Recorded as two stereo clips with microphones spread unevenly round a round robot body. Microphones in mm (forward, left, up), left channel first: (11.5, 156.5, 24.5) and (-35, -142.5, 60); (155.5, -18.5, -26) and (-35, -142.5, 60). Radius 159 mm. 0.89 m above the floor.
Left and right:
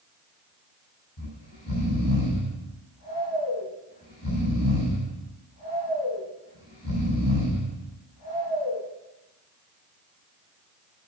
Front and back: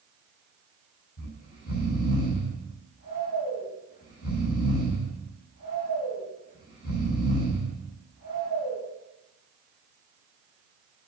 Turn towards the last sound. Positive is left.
turn(degrees=40)